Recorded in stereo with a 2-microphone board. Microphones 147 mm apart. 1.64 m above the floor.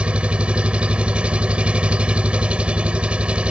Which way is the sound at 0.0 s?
5° right (ahead or behind).